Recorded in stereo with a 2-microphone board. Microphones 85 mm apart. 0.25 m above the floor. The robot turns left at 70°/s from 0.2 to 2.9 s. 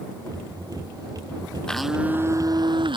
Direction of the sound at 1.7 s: 10° left.